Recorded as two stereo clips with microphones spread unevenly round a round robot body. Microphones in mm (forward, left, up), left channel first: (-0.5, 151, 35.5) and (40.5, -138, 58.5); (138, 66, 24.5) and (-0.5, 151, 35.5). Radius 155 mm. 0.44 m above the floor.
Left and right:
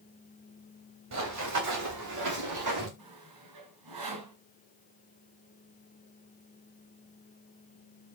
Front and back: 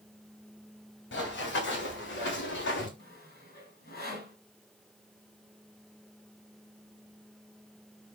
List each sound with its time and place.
1.1 s running footsteps: 45° right, 5.5 m; by 2.9 s 55° right, 5 m
3.0 s sawing: 75° right, 4 m